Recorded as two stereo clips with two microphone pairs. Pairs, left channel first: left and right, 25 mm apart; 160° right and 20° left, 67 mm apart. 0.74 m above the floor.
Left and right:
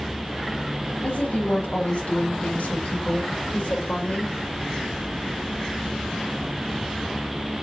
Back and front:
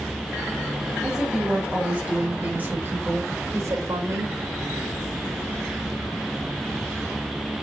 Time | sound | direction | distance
1.0 | a woman speaking | 95° left | 4.5 m